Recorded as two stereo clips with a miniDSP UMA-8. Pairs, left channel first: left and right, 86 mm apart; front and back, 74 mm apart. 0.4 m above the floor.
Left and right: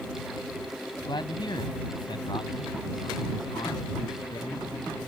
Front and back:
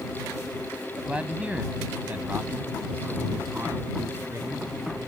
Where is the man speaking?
105° left; by 4.7 s 125° left.